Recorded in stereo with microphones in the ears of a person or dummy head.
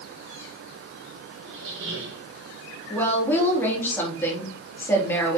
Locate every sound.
1.4 s a squeak: 85° right, 3 m
2.9 s a woman speaking: 10° left (ahead or behind), 3 m